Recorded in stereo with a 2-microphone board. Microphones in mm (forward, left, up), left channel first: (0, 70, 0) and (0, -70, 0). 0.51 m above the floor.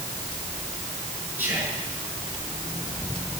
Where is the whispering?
15° right (ahead or behind), 7 m.